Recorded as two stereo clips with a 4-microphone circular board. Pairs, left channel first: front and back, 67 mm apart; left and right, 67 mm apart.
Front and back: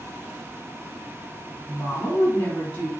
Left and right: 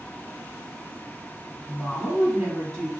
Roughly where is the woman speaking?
Ahead.